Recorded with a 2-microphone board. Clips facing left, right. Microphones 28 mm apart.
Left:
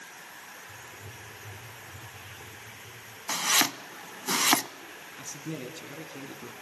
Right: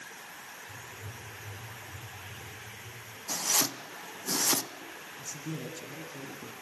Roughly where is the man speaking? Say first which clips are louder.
Left 2 dB; left.